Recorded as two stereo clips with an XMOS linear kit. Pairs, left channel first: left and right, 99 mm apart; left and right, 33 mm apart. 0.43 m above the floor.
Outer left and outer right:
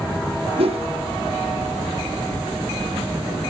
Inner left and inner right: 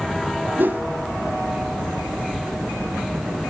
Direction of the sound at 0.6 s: 75° right (ahead or behind).